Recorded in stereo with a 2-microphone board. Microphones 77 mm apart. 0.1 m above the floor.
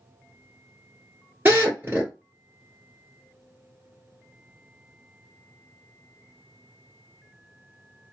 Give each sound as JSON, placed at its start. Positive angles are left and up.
{"t": 1.4, "sound": "a drill", "side_deg": -25, "distance_m": 1.6}